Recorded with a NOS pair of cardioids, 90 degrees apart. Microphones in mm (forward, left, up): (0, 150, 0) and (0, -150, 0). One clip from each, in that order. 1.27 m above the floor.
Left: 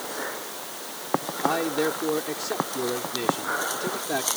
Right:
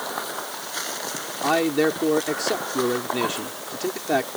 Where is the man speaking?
40° right.